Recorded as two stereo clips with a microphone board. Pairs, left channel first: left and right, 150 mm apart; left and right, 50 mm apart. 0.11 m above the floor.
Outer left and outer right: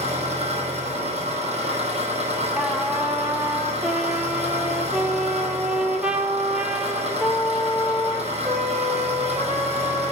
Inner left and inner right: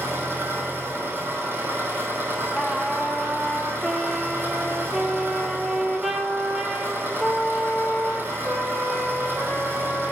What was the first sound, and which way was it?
An engine running, 45° right (ahead or behind).